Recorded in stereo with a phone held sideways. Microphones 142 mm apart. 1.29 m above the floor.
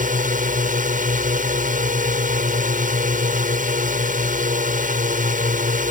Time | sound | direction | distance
0.0 | a drone | 70° right (ahead or behind) | ?